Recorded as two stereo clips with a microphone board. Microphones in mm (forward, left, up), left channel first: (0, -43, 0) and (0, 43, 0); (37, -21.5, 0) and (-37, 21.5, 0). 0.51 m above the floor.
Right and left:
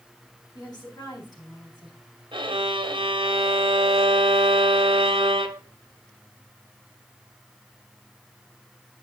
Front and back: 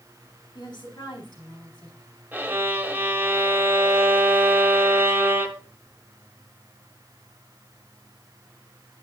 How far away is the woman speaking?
About 3.5 m.